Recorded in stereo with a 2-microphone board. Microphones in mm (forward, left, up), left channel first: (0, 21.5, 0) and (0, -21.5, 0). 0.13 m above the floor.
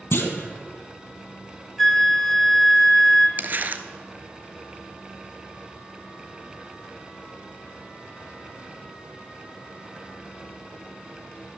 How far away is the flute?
About 0.7 m.